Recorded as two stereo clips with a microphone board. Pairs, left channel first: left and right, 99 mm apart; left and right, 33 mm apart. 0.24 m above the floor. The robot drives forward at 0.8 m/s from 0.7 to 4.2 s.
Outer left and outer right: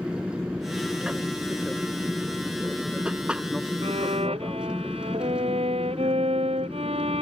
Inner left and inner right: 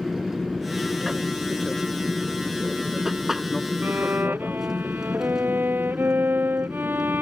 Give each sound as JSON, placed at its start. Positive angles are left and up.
{"t": 0.0, "sound": "an aircraft", "side_deg": -10}
{"t": 3.8, "sound": "a violin", "side_deg": -85}